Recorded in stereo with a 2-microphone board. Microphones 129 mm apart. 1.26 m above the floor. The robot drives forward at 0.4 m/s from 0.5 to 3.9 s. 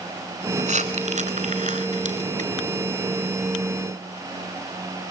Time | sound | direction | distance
0.6 | crumpling | 70° right (ahead or behind) | 4 m